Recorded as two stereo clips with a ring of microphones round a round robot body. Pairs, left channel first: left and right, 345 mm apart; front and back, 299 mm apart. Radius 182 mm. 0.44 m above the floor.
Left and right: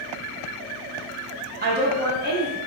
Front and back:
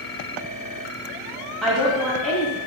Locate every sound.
1.6 s a woman speaking: 90° right, 0.8 m